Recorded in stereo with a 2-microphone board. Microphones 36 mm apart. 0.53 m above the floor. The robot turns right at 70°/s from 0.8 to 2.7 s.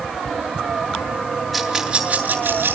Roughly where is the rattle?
Centre.